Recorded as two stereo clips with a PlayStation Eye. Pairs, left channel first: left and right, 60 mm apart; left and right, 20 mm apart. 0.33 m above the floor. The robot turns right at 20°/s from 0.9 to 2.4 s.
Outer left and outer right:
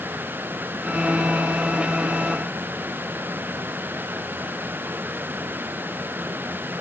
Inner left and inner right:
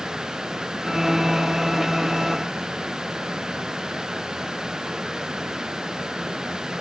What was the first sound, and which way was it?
Only background noise.